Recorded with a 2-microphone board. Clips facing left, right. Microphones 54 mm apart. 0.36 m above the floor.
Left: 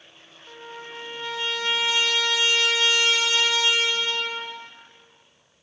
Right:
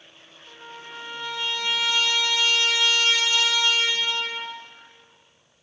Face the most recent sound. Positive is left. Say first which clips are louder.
# left 2 dB
turn(degrees=15)  # may be behind; listen again after turning